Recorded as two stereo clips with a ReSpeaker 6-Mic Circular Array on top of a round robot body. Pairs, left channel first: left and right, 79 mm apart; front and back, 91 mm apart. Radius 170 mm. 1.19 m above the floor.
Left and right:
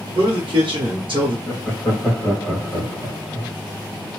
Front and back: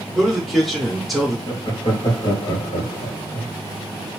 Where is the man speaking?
90° right, 1.2 m.